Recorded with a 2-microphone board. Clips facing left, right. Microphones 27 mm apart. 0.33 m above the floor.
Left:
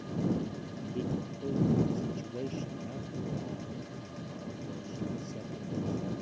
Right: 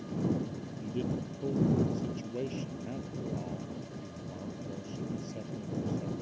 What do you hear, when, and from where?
0.8 s a man speaking: 15° right (ahead or behind)